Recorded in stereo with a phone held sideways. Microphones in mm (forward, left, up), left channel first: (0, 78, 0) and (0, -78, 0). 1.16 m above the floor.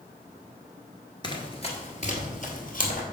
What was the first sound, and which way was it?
Running footsteps, 30° left (ahead or behind).